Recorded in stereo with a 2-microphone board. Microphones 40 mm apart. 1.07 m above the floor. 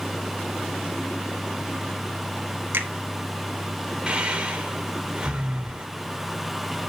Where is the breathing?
25° right (ahead or behind), 1.8 m.